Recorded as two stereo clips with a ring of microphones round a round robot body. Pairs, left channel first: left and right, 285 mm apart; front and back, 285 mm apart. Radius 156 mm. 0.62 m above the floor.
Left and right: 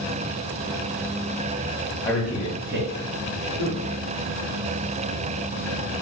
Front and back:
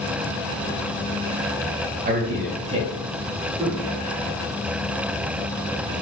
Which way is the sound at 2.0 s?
160° left.